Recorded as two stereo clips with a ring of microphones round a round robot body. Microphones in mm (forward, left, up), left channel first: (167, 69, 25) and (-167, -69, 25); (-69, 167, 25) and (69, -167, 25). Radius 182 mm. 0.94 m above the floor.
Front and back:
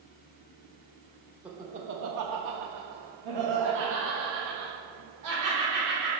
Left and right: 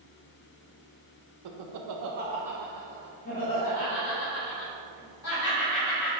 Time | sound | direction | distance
1.4 | laughter | 70° right | 0.9 m